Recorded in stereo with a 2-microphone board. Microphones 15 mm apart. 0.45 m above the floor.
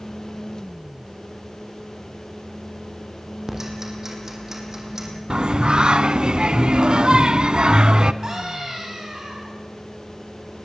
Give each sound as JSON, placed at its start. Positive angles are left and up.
{"t": 3.5, "sound": "ticking", "side_deg": -30, "distance_m": 5.5}
{"t": 5.3, "sound": "singing", "side_deg": -85, "distance_m": 0.9}
{"t": 8.2, "sound": "a scream", "side_deg": -45, "distance_m": 4.0}